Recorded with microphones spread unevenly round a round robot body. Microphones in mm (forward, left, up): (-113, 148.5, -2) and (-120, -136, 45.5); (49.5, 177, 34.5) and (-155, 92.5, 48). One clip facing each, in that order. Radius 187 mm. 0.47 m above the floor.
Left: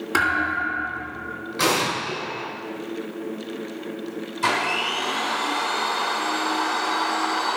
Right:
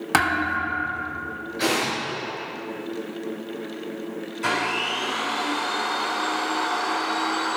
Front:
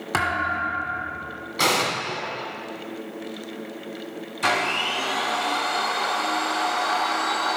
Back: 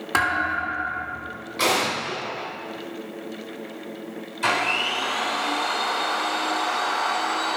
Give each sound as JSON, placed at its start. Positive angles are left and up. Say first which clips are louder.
{"t": 0.1, "sound": "a thud", "louder": "right 4 dB, even", "azimuth_deg": -45, "distance_m": 1.3}
{"t": 1.6, "sound": "an explosion", "louder": "left 1 dB, back 1 dB", "azimuth_deg": 60, "distance_m": 3.0}
{"t": 4.4, "sound": "a blender", "louder": "even, front 1 dB", "azimuth_deg": 50, "distance_m": 4.0}